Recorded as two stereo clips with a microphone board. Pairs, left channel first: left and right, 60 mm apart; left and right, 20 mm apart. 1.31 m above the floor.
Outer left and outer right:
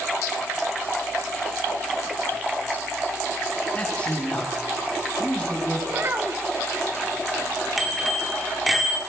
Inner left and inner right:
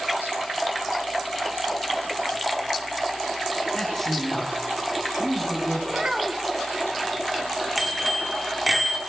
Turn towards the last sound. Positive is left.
turn(degrees=0)  # may be behind; listen again after turning